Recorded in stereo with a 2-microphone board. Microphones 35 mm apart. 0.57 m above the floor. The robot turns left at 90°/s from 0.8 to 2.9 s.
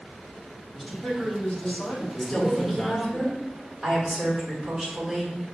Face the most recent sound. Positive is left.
turn(degrees=-40)